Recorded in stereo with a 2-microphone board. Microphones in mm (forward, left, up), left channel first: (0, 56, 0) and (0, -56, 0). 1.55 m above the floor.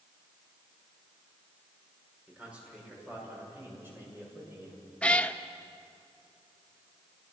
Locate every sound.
2.3 s a man speaking: 10° right (ahead or behind), 5.5 m; by 4.8 s 20° right (ahead or behind), 7.5 m
5.0 s a cat meowing: 10° left (ahead or behind), 0.8 m